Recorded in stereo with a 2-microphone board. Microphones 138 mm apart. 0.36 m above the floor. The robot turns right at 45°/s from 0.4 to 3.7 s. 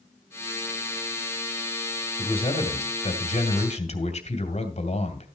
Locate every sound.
2.2 s a man speaking: 45° left, 2 m; by 5.3 s 110° left, 2 m